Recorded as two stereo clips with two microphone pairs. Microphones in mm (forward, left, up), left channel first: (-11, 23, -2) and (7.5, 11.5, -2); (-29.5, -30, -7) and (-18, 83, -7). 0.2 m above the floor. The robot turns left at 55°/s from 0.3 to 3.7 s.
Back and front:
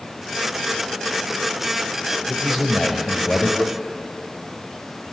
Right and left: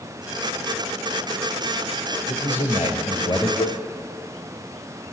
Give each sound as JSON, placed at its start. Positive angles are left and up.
{"t": 2.3, "sound": "a man speaking", "azimuth_deg": -90, "distance_m": 5.0}
{"t": 3.6, "sound": "a cowbell", "azimuth_deg": -85, "distance_m": 2.5}